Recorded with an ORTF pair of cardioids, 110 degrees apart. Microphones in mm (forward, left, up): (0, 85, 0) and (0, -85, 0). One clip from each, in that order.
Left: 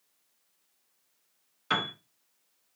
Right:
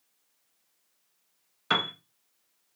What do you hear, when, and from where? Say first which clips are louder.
1.7 s a piano: right 3 dB; 20° right, 1.1 m